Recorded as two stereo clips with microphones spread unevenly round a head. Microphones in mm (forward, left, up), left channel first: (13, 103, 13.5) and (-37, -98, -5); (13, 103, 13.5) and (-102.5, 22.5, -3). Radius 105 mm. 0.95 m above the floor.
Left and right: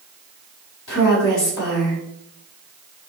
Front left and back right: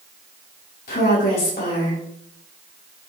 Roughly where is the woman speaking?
Ahead left.